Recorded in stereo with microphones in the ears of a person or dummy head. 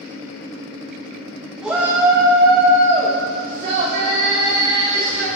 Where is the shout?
5° right (ahead or behind), 3.5 m; by 5.3 s 65° right (ahead or behind), 5.5 m.